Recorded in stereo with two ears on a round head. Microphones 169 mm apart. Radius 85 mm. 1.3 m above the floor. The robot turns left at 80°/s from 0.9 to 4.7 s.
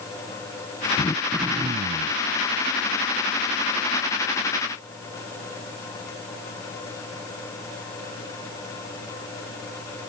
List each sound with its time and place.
1.0 s throat clearing: 25° left; by 2.2 s 75° right